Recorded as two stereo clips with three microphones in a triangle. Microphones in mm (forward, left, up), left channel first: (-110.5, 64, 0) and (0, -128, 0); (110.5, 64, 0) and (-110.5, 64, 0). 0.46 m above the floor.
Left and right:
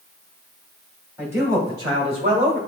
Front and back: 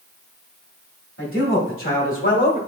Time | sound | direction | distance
1.2 | a man speaking | 20° left | 2 m